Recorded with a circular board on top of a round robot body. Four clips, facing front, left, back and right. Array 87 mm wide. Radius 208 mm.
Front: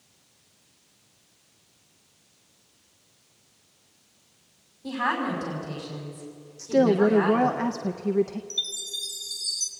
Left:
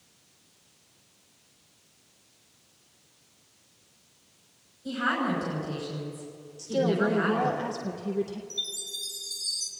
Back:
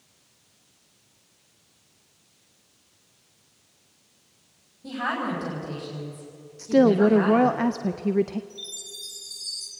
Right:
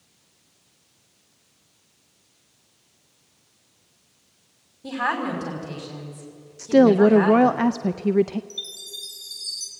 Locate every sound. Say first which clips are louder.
4.8 s a woman speaking: right 2 dB, front 1 dB; 95° right, 5.5 m
6.6 s a woman speaking: right 11 dB, back 2 dB; 105° right, 0.6 m
8.5 s a chime: even, front 3 dB; 10° right, 0.9 m